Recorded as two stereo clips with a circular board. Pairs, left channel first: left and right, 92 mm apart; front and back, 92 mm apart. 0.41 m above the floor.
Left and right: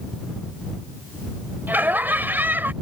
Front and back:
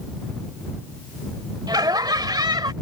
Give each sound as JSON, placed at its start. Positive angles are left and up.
{"t": 1.7, "sound": "laughter", "azimuth_deg": -155}